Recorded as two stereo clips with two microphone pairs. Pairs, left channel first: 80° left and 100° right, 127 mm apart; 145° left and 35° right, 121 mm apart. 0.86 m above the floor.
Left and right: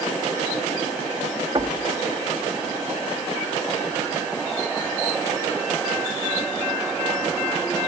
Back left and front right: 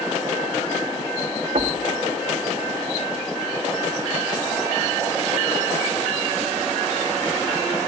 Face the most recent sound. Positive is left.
turn(degrees=-45)